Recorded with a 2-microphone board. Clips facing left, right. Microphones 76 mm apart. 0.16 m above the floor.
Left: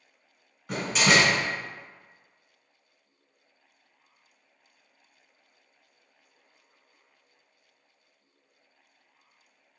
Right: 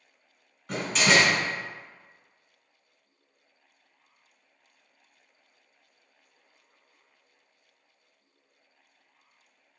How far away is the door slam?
About 1.1 m.